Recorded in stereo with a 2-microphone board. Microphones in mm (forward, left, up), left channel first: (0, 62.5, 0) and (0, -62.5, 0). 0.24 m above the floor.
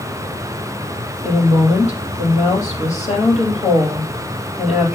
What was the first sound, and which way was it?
A woman speaking, 65° left (ahead or behind).